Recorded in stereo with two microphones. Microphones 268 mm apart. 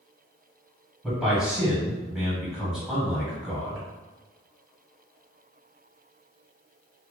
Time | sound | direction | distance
1.0 | a man speaking | centre (ahead or behind) | 1.9 m